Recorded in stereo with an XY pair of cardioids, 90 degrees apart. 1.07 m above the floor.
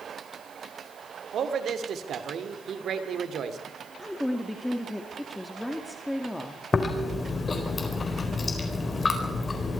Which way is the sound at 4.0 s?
10° left.